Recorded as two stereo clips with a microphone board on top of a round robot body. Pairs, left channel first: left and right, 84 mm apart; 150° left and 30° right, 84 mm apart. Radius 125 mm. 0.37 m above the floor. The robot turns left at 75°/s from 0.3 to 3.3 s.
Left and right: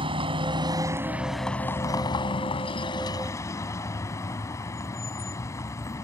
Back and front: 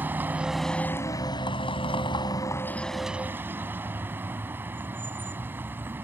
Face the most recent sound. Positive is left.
turn(degrees=35)